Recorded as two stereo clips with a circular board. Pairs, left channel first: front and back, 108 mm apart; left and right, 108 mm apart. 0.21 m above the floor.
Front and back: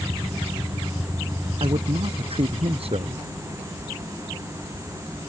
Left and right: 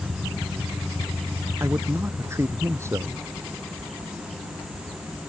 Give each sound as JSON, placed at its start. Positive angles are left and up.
{"t": 1.6, "sound": "a man speaking", "azimuth_deg": -155}